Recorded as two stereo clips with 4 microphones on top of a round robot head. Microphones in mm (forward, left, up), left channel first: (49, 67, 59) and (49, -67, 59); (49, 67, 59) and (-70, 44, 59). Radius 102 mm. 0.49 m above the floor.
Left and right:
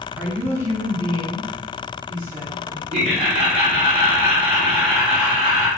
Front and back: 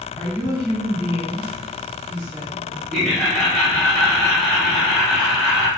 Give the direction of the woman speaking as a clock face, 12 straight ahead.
1 o'clock.